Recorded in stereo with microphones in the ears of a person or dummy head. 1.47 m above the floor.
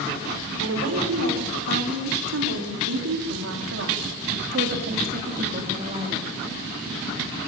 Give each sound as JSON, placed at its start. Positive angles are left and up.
{"t": 0.6, "sound": "a woman speaking", "side_deg": -85, "distance_m": 5.5}